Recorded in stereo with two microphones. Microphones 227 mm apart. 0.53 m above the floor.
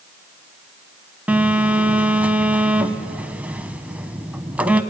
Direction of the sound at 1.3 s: 5° right (ahead or behind).